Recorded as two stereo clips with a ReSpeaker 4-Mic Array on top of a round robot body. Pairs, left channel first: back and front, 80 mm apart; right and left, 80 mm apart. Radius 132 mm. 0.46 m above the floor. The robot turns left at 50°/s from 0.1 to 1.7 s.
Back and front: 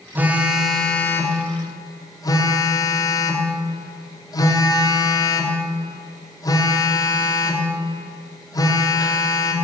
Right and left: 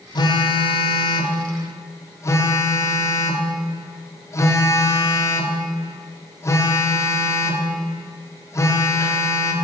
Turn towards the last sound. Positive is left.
turn(degrees=-140)